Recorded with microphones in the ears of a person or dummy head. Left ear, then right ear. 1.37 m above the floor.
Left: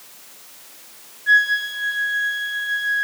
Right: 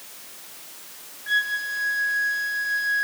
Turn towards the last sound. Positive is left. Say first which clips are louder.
# left 7 dB
turn(degrees=35)  # may be behind; listen again after turning